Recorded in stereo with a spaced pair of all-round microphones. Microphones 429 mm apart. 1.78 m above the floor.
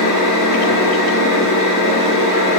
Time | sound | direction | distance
0.0 | a machine running | centre (ahead or behind) | 1.8 m